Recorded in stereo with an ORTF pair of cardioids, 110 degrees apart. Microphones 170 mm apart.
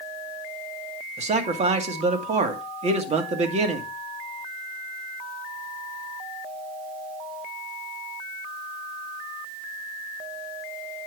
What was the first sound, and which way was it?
A man speaking, 40° right.